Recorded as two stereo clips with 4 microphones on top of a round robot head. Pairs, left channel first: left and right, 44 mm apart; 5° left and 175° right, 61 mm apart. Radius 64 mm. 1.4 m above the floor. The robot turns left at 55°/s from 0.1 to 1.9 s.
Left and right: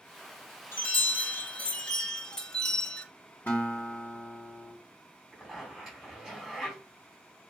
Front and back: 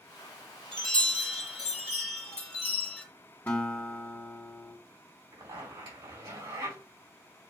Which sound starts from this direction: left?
A chime, at 0.7 s.